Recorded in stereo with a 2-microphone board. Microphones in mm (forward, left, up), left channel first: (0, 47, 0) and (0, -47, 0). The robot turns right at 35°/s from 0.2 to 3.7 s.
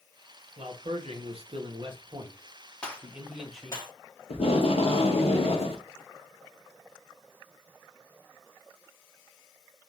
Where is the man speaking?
105° right, 0.9 m; by 3.8 s 5° left, 0.9 m.